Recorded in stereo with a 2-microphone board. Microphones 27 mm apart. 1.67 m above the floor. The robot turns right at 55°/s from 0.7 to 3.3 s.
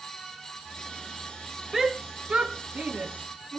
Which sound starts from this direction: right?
A shout, at 1.7 s.